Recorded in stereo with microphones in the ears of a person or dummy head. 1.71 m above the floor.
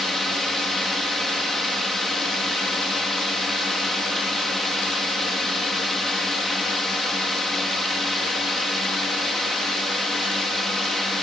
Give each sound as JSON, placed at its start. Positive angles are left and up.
{"t": 0.0, "sound": "a drone", "side_deg": 0}